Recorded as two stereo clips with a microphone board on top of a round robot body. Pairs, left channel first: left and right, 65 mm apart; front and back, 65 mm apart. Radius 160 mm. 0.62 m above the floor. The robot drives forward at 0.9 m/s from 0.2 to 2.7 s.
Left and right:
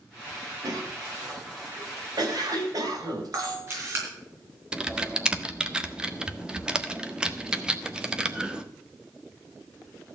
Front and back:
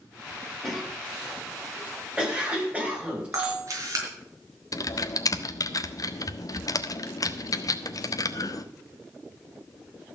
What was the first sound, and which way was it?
A cough, 90° right.